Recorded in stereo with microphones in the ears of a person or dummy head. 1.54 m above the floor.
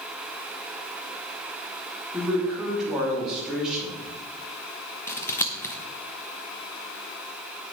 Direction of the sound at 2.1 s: Centre (ahead or behind).